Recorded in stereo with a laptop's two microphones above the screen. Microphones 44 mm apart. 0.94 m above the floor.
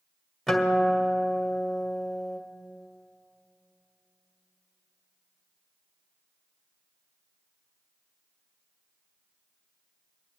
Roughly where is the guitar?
Centre.